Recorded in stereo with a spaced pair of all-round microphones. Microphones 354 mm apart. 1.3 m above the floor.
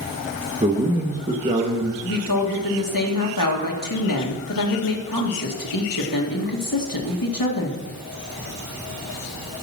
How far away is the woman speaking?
About 1.9 m.